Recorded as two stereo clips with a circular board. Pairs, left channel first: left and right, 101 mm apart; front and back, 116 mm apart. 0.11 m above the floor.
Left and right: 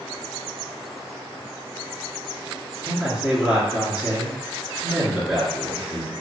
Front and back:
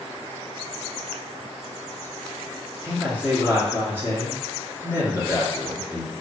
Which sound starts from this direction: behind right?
A man speaking, at 2.8 s.